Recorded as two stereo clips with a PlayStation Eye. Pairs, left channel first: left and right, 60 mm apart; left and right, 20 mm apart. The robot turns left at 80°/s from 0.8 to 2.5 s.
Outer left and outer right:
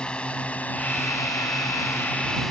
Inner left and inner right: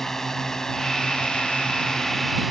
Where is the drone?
15° left (ahead or behind); by 2.5 s 5° right (ahead or behind).